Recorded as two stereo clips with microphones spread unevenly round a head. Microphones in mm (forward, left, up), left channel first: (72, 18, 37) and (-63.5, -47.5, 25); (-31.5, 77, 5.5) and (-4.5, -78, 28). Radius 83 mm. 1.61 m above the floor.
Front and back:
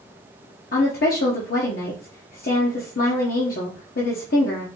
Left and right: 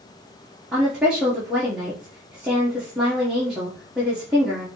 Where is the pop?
No pop in this recording.